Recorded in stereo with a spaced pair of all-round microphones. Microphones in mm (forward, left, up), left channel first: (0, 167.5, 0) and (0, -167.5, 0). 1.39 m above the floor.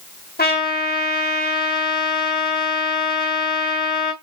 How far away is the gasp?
No gasp in this recording.